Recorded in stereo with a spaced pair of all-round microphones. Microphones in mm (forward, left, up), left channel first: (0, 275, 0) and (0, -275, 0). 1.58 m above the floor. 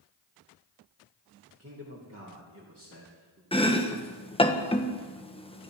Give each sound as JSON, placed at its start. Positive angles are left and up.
{"t": 1.6, "sound": "a man speaking", "side_deg": -25, "distance_m": 2.5}
{"t": 3.5, "sound": "chopping", "side_deg": 10, "distance_m": 1.1}